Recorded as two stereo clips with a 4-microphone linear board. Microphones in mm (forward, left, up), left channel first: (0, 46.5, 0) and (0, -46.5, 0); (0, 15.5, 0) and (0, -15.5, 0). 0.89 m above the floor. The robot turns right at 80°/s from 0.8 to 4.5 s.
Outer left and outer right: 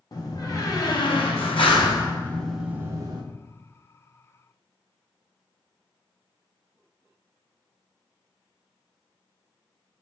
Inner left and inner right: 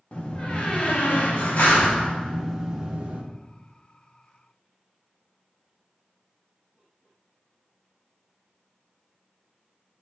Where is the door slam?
40° left, 1.2 m; by 3.2 s 125° right, 1.2 m.